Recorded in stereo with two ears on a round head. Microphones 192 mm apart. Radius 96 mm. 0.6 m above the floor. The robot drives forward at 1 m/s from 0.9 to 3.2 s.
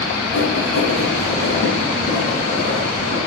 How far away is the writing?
About 1.2 m.